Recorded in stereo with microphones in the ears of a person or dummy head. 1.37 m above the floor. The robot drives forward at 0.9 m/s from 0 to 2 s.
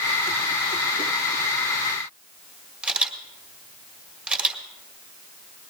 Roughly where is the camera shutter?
Centre.